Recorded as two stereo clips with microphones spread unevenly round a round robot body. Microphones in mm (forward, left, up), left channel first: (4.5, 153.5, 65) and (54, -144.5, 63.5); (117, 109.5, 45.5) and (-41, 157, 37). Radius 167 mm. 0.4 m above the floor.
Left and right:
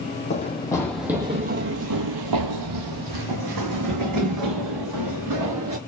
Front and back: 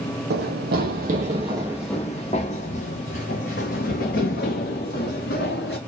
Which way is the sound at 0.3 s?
170° left.